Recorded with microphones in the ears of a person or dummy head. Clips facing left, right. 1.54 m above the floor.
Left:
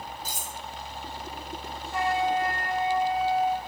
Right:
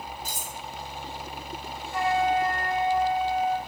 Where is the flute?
35° left (ahead or behind), 1.2 m.